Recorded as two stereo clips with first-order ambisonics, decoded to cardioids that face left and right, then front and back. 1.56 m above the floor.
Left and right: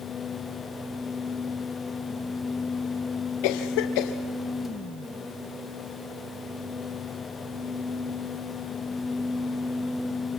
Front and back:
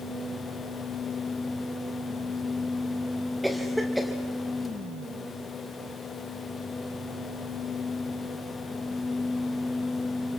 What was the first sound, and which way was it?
A cough, 90° left.